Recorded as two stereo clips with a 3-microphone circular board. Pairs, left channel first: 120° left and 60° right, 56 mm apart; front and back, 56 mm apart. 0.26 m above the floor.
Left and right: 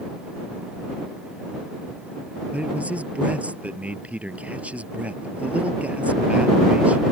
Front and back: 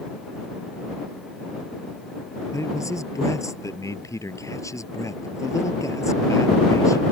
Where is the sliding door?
I don't hear a sliding door.